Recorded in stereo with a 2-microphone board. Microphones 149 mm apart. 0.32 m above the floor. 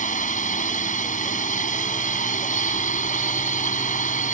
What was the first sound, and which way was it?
A drone, 60° left (ahead or behind).